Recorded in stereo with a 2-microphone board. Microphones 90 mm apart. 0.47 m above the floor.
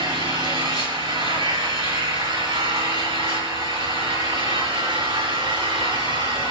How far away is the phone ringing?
No phone ringing in this recording.